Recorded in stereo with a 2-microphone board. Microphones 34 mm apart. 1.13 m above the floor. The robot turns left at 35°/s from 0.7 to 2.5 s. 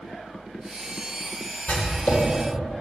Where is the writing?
75° left (ahead or behind), 2 m; by 2.2 s 60° left (ahead or behind), 2 m.